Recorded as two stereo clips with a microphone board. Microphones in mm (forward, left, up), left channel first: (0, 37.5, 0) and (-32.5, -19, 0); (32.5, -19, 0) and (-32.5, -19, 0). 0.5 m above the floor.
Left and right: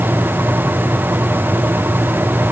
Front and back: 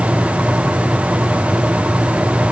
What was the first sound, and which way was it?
Only background noise.